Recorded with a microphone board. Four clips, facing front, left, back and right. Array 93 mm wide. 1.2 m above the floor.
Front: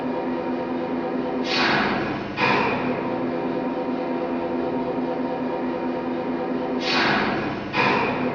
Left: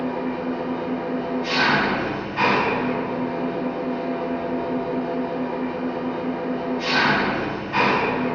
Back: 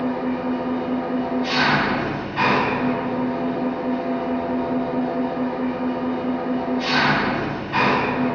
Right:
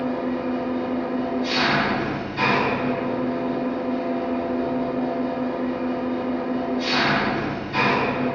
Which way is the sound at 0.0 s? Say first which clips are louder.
Right 1 dB, back 2 dB; 155° left.